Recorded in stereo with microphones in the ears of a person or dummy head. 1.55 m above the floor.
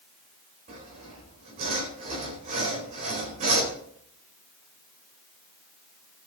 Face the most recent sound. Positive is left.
turn(degrees=-45)  # may be behind; listen again after turning